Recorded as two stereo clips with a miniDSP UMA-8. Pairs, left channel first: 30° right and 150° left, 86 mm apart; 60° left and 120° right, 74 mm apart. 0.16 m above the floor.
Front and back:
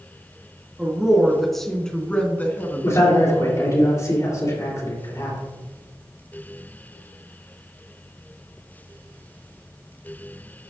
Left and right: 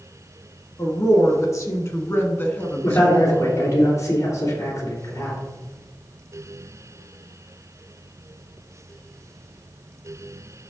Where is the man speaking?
15° left, 3.5 m.